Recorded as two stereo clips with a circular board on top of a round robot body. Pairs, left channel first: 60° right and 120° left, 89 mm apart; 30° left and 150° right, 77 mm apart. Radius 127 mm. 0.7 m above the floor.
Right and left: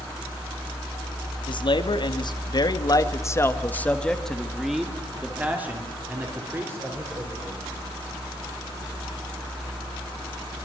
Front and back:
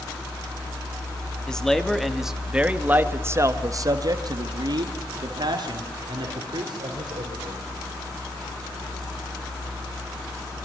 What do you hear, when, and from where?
1.5 s a man speaking: 50° right, 2.5 m; by 7.6 s straight behind, 4.5 m